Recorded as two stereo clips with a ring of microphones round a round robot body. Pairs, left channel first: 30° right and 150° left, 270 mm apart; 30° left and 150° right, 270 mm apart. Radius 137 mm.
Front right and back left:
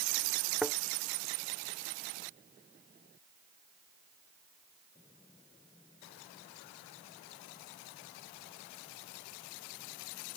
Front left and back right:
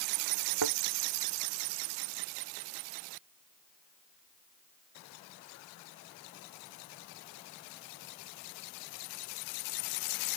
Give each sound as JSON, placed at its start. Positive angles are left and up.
{"t": 0.6, "sound": "a thud", "azimuth_deg": -120}